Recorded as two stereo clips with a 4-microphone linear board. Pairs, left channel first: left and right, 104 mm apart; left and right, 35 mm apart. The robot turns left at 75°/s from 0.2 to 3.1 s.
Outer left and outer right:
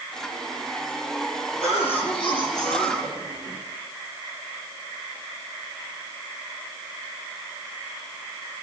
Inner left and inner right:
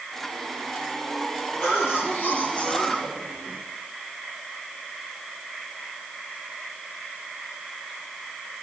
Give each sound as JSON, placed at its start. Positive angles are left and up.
{"t": 1.6, "sound": "a cough", "azimuth_deg": 110, "distance_m": 8.0}